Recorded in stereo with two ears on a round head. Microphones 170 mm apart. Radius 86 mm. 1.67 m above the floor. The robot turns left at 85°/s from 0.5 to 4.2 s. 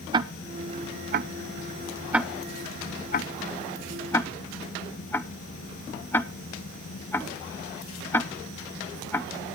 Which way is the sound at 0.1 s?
20° right (ahead or behind).